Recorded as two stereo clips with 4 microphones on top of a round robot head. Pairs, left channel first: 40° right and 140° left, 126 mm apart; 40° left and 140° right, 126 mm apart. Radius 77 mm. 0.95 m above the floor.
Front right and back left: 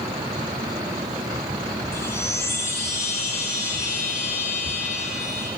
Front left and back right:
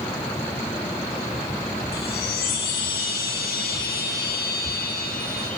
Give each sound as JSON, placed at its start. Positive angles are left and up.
{"t": 1.9, "sound": "a chime", "azimuth_deg": 30, "distance_m": 1.9}